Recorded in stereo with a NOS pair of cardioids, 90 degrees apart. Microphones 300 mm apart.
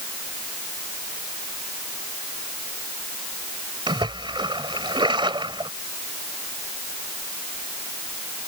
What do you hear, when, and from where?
3.9 s a splash: 15° right